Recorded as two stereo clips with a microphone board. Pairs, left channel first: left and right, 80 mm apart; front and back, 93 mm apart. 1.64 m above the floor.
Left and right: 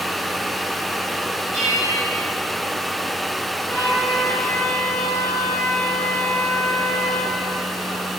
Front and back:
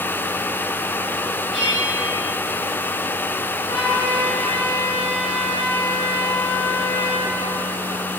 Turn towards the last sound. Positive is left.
turn(degrees=30)